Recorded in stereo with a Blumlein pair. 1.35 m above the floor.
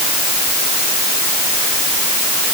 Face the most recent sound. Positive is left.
No sound to turn to.